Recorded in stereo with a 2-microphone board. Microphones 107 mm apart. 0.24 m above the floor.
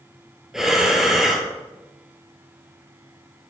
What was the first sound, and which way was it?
Breathing, 5° right (ahead or behind).